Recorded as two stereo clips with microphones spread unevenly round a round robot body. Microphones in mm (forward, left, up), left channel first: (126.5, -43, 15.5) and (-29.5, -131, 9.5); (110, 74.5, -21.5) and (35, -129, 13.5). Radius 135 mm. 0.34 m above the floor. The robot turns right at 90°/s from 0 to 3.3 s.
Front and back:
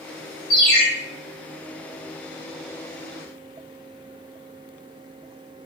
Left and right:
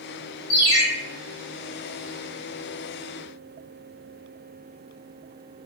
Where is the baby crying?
No baby crying in this recording.